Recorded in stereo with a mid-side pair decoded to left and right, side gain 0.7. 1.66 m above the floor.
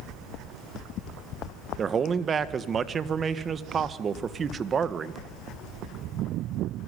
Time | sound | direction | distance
1.8 | a man speaking | 30° right | 1.5 m